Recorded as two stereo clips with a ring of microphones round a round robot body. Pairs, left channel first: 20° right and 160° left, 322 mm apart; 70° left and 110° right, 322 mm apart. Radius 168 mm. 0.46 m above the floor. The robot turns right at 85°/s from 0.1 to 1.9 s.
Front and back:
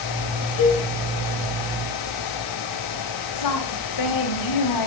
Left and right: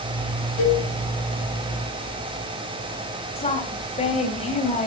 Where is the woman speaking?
5° right, 3 m.